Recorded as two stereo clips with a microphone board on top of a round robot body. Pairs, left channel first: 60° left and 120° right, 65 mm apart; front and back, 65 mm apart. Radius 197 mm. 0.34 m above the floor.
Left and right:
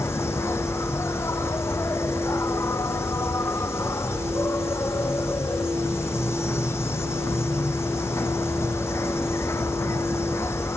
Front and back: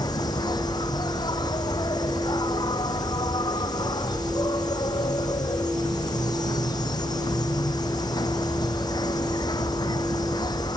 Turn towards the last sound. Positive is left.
turn(degrees=10)